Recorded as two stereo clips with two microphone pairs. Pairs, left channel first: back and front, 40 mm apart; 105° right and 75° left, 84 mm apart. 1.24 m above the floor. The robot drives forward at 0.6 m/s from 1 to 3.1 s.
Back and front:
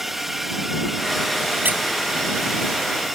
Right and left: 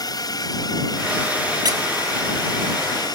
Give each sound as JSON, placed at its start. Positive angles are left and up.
{"t": 0.0, "sound": "a drone", "azimuth_deg": -80}
{"t": 1.6, "sound": "a squeak", "azimuth_deg": 40}